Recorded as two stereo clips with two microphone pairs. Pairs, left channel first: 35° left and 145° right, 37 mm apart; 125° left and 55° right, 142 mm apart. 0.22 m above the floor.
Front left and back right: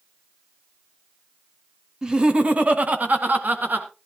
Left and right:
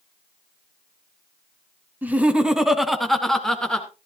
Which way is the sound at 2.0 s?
120° right.